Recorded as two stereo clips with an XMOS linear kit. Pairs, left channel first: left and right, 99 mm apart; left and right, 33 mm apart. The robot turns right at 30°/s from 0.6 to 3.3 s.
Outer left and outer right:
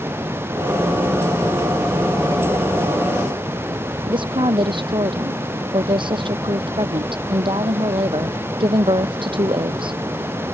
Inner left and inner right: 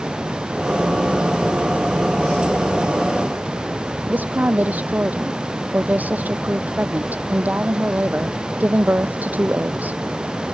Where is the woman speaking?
55° right (ahead or behind).